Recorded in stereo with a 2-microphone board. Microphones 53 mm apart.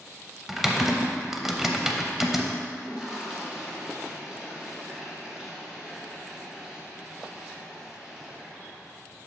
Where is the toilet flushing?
10° right (ahead or behind), 1.3 m.